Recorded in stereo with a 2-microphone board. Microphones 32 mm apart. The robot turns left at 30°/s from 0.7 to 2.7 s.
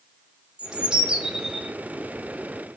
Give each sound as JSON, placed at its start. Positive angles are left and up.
{"t": 0.6, "sound": "a bird", "side_deg": -35, "distance_m": 0.5}